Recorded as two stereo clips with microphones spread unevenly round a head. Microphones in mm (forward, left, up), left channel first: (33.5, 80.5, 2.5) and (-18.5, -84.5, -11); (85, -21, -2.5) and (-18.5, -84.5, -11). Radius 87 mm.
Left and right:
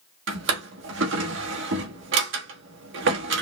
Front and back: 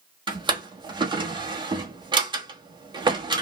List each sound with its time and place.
0.3 s a drawer: 95° right, 1.4 m